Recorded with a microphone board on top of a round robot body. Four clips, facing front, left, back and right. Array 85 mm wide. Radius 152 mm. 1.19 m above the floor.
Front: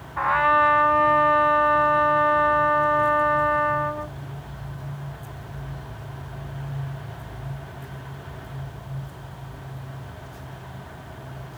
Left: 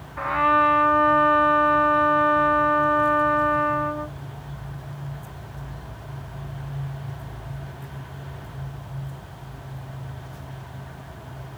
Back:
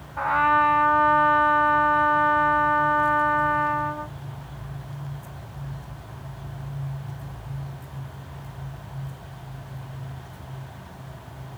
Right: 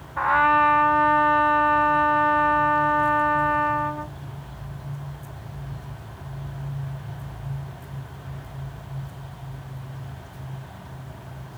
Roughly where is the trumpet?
Ahead right.